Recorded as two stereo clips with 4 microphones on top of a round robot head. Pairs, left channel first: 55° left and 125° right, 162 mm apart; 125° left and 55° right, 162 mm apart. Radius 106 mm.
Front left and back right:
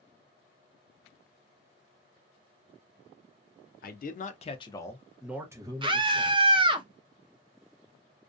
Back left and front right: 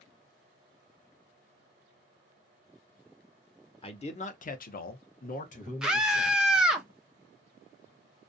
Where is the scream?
135° right, 0.6 m.